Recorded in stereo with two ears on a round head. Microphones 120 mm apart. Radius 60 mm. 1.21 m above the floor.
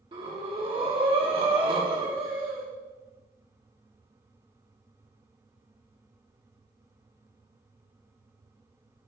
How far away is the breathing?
About 1.5 m.